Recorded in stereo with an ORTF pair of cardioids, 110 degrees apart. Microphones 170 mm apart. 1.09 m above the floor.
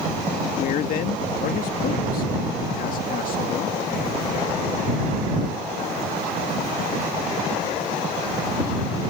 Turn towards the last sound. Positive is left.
turn(degrees=60)